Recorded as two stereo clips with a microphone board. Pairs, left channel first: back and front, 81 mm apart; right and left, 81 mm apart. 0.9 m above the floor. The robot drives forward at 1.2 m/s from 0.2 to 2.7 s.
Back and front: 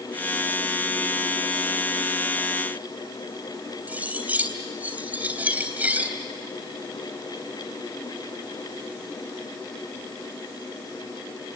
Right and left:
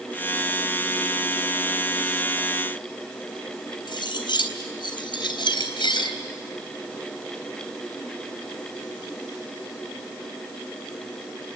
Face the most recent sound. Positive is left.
turn(degrees=-70)